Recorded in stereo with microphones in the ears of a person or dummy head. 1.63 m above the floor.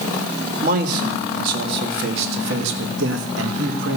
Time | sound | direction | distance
0.6 | a man speaking | 55° right (ahead or behind) | 2.5 m